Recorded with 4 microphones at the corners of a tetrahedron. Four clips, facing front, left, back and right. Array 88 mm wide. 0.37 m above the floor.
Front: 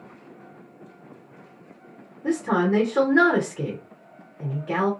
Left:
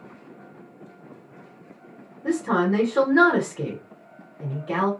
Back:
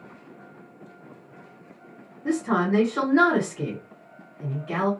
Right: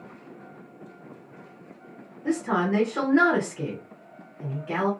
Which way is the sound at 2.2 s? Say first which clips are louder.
Left 3 dB, front 1 dB; 30° left.